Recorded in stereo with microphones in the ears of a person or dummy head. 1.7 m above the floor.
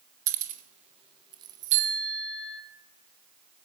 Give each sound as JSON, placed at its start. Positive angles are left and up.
{"t": 0.3, "sound": "keys jangling", "side_deg": -50, "distance_m": 2.5}
{"t": 1.7, "sound": "a bicycle bell", "side_deg": -40, "distance_m": 8.0}